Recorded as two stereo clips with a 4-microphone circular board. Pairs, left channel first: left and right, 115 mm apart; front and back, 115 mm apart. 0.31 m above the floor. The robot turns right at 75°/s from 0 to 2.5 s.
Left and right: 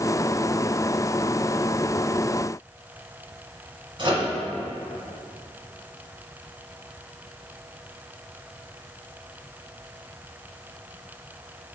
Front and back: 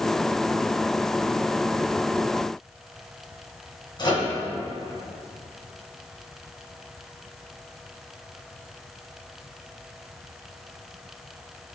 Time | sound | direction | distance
4.0 | a microwave | 45° right | 2 m